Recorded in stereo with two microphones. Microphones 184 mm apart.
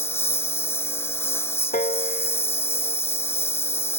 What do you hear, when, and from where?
0.0 s a lawn mower: 15° left (ahead or behind)
1.7 s a piano: 55° left (ahead or behind)